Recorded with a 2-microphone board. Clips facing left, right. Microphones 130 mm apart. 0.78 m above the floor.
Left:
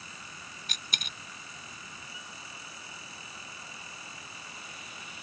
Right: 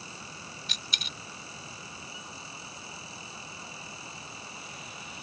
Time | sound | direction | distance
0.7 | a dropped coin | 45° left (ahead or behind) | ?